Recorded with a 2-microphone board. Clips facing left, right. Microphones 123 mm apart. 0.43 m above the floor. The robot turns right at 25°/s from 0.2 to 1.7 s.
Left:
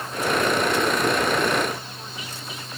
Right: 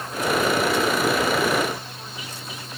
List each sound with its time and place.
Only background noise.